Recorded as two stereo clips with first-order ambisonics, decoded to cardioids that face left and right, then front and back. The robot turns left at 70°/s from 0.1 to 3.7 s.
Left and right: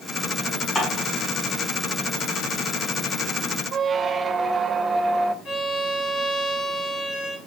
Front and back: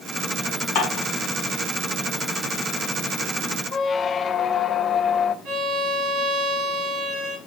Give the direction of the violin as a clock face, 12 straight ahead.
7 o'clock.